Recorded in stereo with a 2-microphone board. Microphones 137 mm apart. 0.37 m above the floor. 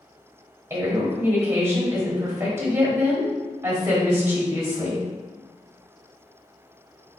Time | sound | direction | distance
0.7 | a woman speaking | 20° right (ahead or behind) | 1.4 m